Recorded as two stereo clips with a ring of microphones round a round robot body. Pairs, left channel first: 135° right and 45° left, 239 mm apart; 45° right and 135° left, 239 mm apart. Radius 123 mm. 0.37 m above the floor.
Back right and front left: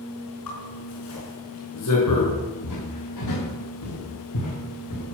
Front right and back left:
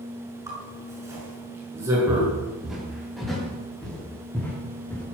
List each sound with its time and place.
0.5 s a zipper: 145° right, 5.5 m
2.1 s footsteps: 140° right, 7 m; by 5.0 s 125° right, 7.5 m